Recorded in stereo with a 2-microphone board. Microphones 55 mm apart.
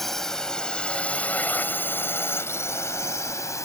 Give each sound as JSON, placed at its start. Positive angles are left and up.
{"t": 0.0, "sound": "a drone", "side_deg": 5}